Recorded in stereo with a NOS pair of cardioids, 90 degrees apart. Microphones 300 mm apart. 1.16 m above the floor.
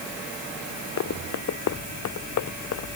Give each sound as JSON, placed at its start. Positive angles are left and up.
{"t": 1.0, "sound": "running footsteps", "azimuth_deg": 60}